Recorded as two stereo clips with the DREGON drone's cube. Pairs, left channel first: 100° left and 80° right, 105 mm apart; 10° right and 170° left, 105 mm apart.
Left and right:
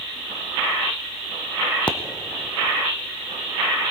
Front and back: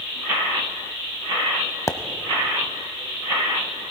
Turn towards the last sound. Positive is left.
turn(degrees=30)